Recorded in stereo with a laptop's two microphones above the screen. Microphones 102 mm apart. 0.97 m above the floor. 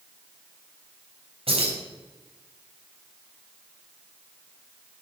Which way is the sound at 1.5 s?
70° right (ahead or behind).